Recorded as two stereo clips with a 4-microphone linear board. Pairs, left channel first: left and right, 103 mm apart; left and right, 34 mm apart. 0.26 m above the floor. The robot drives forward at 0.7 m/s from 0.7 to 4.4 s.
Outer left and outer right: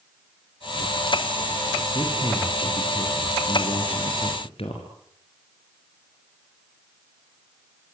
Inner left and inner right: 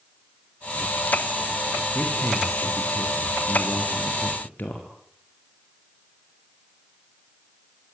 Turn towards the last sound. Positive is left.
turn(degrees=70)  # may be behind; listen again after turning